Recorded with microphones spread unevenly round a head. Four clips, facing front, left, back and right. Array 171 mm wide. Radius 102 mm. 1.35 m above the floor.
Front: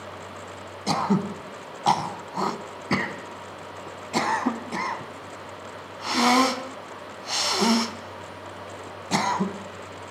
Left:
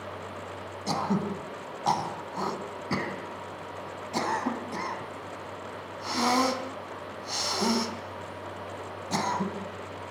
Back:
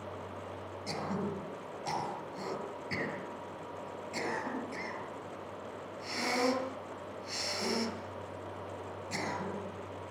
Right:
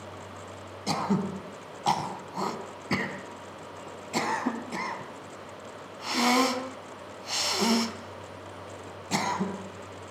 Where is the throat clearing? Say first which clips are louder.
Even, front 12 dB; 10° right, 3 m.